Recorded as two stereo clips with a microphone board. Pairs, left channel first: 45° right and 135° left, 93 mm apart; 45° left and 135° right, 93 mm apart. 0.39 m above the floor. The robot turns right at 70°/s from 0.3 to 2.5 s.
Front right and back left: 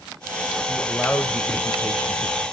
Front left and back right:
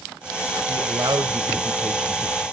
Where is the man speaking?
145° right, 1.4 m; by 2.4 s 20° right, 1.4 m.